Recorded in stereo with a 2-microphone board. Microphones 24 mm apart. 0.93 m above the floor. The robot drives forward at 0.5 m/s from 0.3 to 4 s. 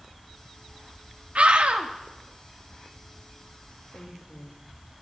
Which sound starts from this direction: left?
A woman speaking, at 3.9 s.